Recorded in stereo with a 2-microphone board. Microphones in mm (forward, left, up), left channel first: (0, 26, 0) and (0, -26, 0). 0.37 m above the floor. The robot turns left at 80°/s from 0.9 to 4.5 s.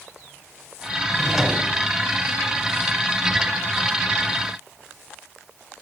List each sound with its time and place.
1.1 s a drawer: 15° left, 0.8 m; by 1.7 s 30° right, 0.8 m